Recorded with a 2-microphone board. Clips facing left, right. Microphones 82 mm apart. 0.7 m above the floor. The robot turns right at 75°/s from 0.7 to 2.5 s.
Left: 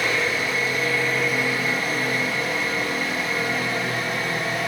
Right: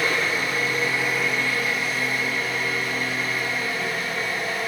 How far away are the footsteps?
I don't hear footsteps.